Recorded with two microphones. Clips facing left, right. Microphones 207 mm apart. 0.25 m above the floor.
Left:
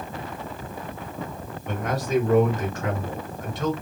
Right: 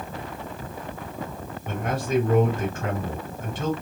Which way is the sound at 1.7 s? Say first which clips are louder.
Even; 30° right (ahead or behind).